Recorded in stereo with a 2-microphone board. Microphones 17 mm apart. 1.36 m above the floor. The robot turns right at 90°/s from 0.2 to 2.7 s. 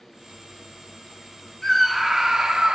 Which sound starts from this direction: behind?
A scream, at 1.6 s.